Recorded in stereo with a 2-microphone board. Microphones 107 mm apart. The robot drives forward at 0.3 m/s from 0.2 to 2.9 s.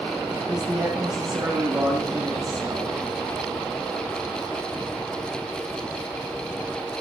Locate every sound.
0.5 s a man speaking: 5° right (ahead or behind), 7.5 m